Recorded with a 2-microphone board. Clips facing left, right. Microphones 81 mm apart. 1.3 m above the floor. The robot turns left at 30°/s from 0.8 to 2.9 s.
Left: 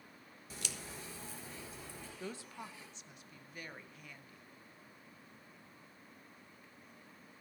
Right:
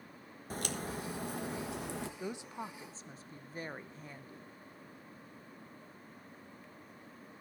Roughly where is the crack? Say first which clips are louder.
Right 9 dB; ahead right.